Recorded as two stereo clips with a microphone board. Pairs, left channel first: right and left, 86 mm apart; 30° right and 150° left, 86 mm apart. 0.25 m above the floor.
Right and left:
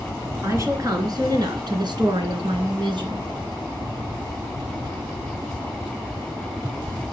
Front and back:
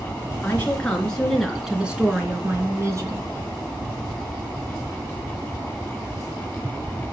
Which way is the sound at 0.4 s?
40° left.